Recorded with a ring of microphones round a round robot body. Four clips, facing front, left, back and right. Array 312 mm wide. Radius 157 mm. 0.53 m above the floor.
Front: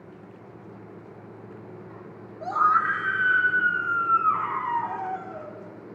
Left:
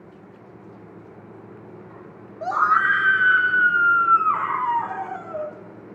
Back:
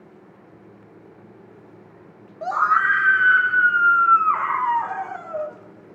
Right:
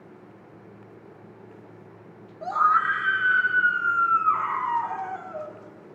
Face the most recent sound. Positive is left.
turn(degrees=155)